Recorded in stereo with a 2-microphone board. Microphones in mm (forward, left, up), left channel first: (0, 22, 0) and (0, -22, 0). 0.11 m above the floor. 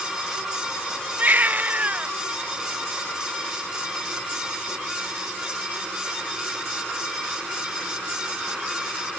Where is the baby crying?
35° right (ahead or behind).